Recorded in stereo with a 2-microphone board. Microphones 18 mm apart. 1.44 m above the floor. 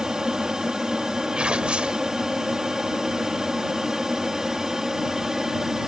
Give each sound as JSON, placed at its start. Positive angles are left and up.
{"t": 0.0, "sound": "an aircraft", "side_deg": -35}
{"t": 1.4, "sound": "tearing paper", "side_deg": -65}